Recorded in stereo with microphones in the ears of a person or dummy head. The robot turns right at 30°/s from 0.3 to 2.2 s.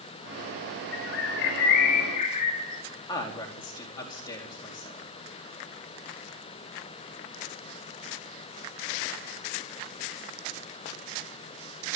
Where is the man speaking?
25° left (ahead or behind), 4 m.